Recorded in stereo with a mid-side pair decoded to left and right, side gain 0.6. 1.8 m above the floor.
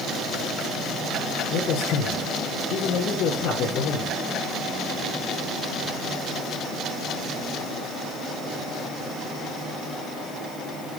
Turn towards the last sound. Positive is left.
turn(degrees=65)